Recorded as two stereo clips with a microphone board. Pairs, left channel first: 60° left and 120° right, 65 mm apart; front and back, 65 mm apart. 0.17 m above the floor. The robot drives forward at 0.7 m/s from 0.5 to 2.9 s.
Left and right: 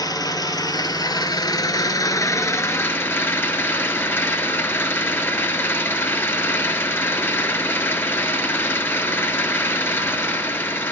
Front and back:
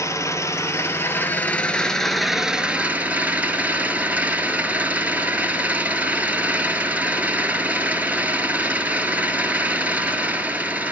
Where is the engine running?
40° left, 1.7 m; by 10.9 s 115° left, 1.3 m.